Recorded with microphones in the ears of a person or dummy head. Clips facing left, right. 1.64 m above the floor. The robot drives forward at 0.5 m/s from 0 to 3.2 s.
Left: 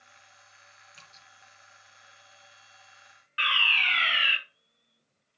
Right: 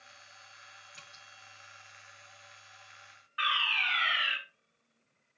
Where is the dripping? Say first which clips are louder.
Right 1 dB; centre (ahead or behind), 3.5 m.